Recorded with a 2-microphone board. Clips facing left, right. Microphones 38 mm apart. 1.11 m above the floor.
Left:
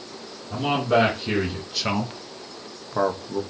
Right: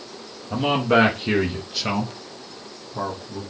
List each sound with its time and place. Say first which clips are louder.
0.5 s a man speaking: right 2 dB; 40° right (ahead or behind), 1.1 m; by 3.4 s 70° left (ahead or behind), 0.9 m